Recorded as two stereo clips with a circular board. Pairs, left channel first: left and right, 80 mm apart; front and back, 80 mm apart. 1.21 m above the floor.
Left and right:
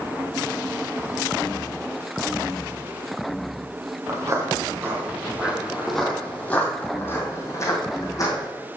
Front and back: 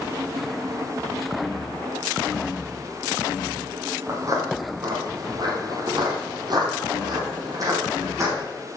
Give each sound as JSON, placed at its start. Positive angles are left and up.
{"t": 4.1, "sound": "footsteps", "azimuth_deg": -135, "distance_m": 2.5}